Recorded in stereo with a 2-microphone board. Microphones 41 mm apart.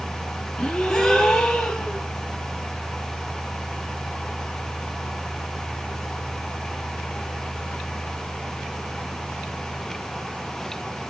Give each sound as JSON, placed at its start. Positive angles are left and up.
{"t": 0.6, "sound": "a gasp", "side_deg": 10, "distance_m": 2.5}